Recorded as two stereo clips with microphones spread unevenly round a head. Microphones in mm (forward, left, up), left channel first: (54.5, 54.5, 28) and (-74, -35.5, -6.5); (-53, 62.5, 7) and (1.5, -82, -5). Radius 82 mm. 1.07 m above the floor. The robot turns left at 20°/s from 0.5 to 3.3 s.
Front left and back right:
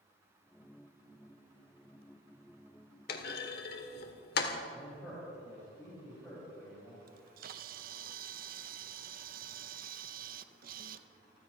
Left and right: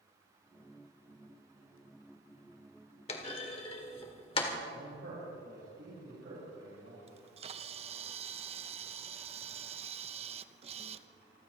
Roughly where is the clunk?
Ahead left.